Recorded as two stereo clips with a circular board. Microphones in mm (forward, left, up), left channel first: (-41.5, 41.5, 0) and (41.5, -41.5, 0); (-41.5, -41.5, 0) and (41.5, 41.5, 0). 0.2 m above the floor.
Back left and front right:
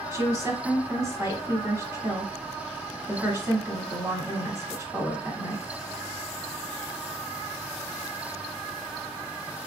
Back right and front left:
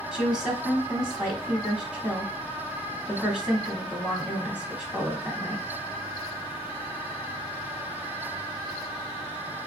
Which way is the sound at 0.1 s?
30° right.